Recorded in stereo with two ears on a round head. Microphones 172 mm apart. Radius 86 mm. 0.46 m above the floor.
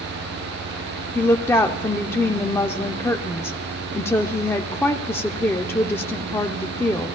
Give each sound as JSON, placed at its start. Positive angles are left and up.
{"t": 1.1, "sound": "a woman speaking", "side_deg": 10, "distance_m": 0.7}